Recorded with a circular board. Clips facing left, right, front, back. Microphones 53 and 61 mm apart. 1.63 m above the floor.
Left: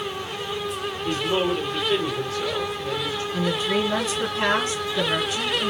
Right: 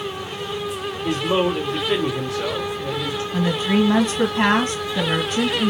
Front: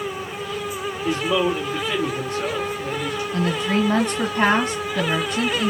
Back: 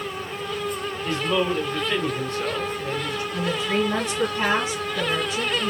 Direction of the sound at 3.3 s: 45° right.